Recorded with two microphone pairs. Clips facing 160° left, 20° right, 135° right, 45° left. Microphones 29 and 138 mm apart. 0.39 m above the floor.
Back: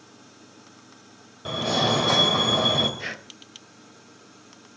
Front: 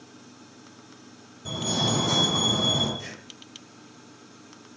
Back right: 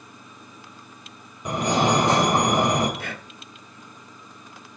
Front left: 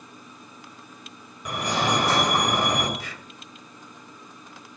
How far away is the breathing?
About 0.6 m.